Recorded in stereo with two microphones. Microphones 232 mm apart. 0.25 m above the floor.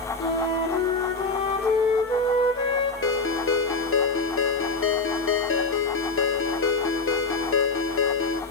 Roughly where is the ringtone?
Left.